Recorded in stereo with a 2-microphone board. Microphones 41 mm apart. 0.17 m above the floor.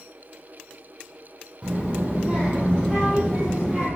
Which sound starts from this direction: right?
A child speaking, at 1.6 s.